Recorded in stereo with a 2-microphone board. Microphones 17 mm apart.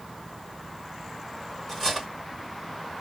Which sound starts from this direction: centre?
Cutlery clinking, at 1.7 s.